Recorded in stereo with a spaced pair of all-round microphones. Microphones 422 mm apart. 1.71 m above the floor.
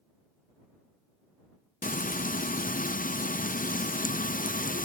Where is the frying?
20° left (ahead or behind).